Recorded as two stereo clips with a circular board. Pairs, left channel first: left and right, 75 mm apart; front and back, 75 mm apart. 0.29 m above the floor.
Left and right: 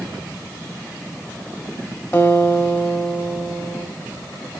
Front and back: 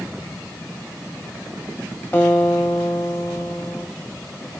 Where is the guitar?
55° left, 1.4 m.